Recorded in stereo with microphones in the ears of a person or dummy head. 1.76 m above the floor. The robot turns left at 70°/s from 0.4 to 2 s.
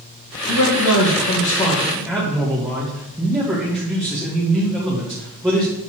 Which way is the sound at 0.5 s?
100° left.